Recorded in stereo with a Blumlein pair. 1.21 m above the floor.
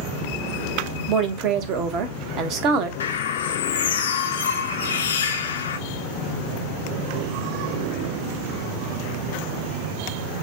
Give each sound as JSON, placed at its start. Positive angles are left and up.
{"t": 1.1, "sound": "a woman speaking", "azimuth_deg": -35, "distance_m": 0.9}
{"t": 3.0, "sound": "a bird", "azimuth_deg": 65, "distance_m": 0.5}